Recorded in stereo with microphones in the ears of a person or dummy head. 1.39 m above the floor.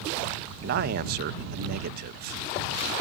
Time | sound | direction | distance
0.6 | a man speaking | 55° right (ahead or behind) | ?